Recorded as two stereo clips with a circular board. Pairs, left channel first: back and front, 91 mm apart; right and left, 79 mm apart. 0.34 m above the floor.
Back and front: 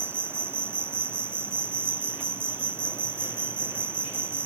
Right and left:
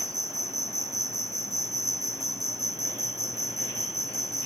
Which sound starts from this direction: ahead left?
An insect, at 0.0 s.